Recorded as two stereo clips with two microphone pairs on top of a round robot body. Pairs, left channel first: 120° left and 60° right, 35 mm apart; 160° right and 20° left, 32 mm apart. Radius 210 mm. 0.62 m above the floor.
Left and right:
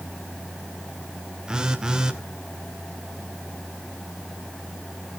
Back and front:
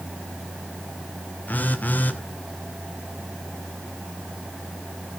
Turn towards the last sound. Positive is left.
turn(degrees=-130)